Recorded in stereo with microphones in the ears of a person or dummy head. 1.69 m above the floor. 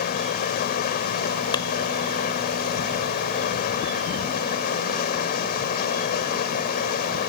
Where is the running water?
45° left (ahead or behind).